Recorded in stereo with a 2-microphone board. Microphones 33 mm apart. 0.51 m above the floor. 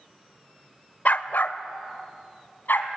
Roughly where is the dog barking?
Left.